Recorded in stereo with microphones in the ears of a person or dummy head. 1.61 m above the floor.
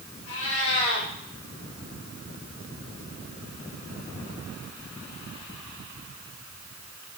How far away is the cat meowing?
About 4.5 m.